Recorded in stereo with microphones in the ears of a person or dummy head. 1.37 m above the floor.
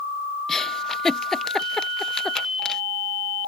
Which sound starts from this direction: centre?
A giggle, at 0.5 s.